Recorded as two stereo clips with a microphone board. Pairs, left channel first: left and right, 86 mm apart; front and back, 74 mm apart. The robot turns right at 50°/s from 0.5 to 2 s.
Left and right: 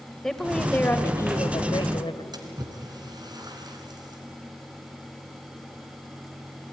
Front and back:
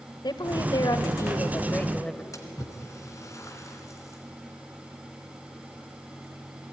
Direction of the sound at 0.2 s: 5° left.